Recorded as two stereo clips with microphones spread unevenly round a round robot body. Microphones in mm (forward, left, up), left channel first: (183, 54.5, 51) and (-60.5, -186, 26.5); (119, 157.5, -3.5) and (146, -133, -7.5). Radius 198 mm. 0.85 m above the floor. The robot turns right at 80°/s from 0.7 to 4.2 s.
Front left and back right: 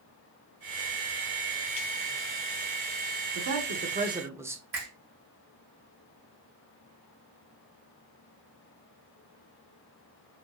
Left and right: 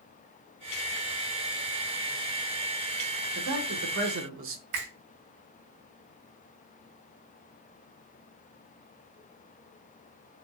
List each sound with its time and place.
3.4 s a man speaking: 125° right, 1.0 m; by 4.6 s 60° right, 1.0 m
4.7 s a finger snap: 80° right, 3 m